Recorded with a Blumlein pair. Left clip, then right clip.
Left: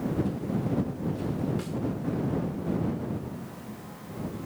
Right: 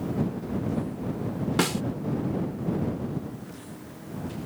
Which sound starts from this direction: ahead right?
A snare drum, at 1.6 s.